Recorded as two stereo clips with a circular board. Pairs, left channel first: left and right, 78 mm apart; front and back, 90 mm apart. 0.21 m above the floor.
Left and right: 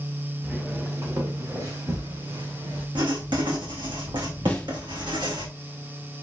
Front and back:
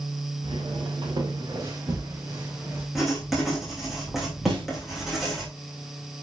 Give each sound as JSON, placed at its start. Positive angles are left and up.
{"t": 0.4, "sound": "footsteps", "azimuth_deg": -160, "distance_m": 2.5}
{"t": 3.0, "sound": "writing", "azimuth_deg": -90, "distance_m": 3.5}
{"t": 4.5, "sound": "a snare drum", "azimuth_deg": 165, "distance_m": 2.5}